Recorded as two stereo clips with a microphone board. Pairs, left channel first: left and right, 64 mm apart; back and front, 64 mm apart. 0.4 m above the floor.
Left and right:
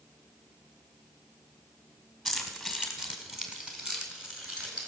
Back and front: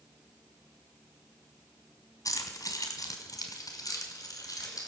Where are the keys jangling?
Straight behind, 2.0 m; by 4.9 s 160° right, 4 m.